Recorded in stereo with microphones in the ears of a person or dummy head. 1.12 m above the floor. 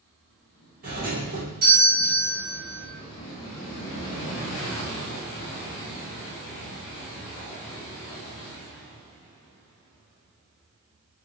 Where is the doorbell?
45° right (ahead or behind), 1.4 m.